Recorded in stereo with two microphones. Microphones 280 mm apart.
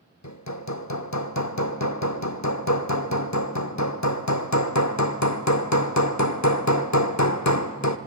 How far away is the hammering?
About 0.9 m.